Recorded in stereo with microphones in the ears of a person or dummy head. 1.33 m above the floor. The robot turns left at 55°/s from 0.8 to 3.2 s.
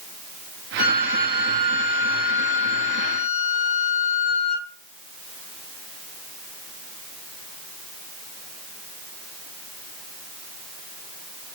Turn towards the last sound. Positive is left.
turn(degrees=-5)